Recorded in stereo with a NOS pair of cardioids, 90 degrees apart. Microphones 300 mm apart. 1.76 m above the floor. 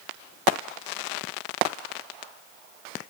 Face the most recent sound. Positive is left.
No sound to turn to.